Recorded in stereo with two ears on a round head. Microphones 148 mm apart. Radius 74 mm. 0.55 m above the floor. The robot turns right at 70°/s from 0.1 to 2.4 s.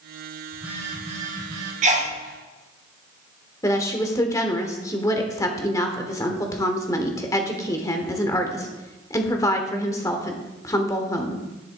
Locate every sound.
0.5 s a phone buzzing: straight behind, 4 m; by 1.7 s 95° right, 4 m
1.8 s a sneeze: 45° right (ahead or behind), 1.4 m; by 2.1 s 40° right (ahead or behind), 1.4 m
3.6 s a woman speaking: 20° left (ahead or behind), 1.4 m